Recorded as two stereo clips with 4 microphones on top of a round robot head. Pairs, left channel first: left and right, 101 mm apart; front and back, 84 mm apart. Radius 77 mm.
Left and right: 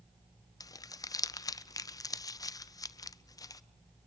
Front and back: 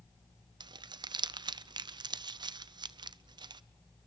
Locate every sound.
0.6 s crumpling: 145° left, 0.7 m